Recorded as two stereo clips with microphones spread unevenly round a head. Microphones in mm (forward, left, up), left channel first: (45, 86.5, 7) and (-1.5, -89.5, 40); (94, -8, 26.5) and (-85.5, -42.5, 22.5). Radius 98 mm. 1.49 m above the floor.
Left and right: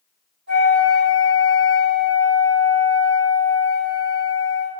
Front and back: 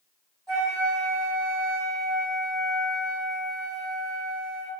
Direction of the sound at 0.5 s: 100° right.